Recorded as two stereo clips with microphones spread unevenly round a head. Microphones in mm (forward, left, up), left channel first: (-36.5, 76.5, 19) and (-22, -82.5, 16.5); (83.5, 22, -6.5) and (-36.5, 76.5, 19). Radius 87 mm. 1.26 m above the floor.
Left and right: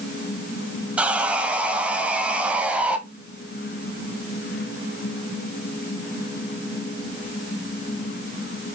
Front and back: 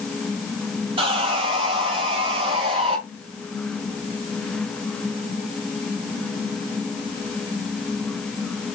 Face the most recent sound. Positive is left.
turn(degrees=-165)